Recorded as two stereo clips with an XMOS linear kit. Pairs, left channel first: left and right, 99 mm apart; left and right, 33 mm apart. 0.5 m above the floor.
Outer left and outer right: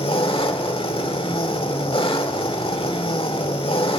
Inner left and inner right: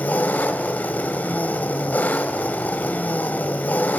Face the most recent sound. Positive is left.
turn(degrees=60)  # may be behind; listen again after turning